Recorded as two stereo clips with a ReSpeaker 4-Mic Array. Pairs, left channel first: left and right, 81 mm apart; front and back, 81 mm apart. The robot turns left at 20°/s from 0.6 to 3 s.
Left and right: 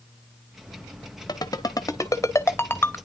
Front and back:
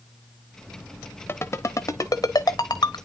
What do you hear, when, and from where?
1.3 s a ringtone: 55° left, 1.1 m; by 3.0 s 25° left, 1.1 m